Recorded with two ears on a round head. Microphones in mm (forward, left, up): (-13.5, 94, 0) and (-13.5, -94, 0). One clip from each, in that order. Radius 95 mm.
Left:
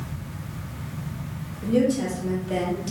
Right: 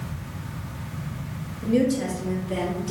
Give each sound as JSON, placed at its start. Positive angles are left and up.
{"t": 1.6, "sound": "a woman speaking", "side_deg": 0, "distance_m": 1.0}